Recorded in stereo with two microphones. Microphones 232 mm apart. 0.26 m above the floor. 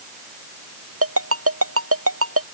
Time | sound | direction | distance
1.0 | a ringtone | 65° right (ahead or behind) | ?